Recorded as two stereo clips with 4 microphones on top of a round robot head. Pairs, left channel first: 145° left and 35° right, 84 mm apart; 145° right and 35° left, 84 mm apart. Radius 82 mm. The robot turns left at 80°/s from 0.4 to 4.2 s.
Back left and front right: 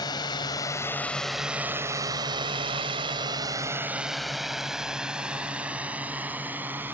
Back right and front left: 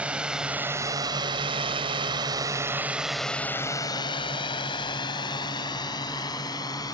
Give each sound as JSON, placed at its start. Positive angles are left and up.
{"t": 0.0, "sound": "a drone", "azimuth_deg": 110}